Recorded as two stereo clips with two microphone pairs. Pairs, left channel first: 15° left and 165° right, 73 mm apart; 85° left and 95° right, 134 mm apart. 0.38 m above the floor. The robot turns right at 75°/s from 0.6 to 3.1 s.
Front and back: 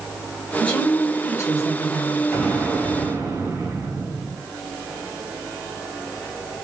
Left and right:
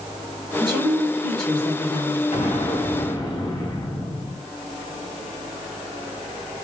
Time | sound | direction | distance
0.6 | a woman speaking | 55° right | 1.1 m
2.3 | an explosion | 85° left | 1.7 m